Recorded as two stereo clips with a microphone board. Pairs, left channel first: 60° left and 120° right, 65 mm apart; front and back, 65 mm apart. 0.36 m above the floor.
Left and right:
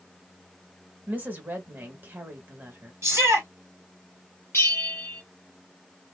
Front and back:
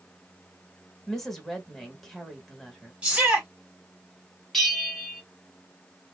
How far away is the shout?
About 1.8 m.